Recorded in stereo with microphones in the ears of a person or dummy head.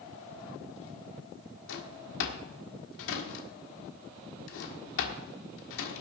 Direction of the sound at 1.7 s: 65° left (ahead or behind).